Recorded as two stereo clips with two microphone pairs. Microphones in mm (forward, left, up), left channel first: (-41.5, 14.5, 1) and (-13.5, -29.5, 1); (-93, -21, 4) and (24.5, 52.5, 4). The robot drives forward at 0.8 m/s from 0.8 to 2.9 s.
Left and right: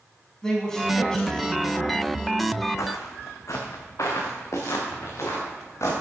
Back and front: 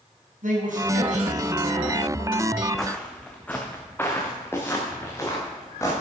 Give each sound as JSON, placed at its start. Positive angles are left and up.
{"t": 0.4, "sound": "a man speaking", "azimuth_deg": 45, "distance_m": 4.5}
{"t": 2.8, "sound": "footsteps", "azimuth_deg": 125, "distance_m": 1.7}